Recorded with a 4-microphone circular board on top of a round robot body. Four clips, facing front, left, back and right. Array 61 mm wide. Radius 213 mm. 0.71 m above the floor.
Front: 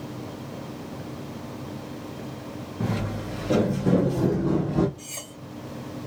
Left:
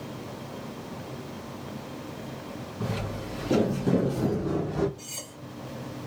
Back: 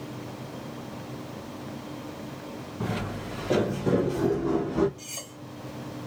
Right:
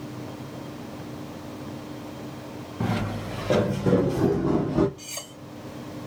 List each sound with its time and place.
2.8 s footsteps: 90° right, 3 m; by 4.9 s 70° right, 1.1 m
5.0 s cutlery clinking: 65° right, 2.5 m